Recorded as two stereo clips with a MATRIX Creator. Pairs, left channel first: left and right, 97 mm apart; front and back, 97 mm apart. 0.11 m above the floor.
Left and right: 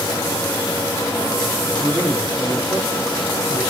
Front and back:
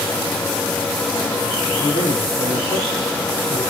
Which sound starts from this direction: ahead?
A man speaking, at 1.8 s.